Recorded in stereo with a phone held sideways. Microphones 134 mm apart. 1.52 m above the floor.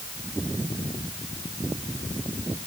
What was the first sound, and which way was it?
Only background noise.